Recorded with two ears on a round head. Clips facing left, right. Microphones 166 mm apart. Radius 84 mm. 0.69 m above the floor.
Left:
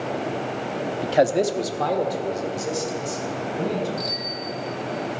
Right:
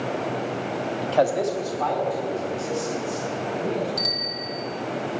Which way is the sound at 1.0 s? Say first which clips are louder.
Left 2 dB; 5° left (ahead or behind).